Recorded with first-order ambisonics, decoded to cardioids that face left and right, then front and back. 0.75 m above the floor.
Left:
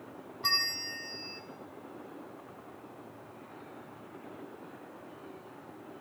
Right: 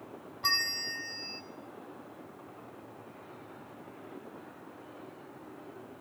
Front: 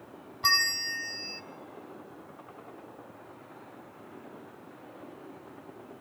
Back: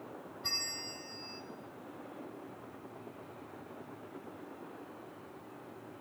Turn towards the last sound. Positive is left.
turn(degrees=-5)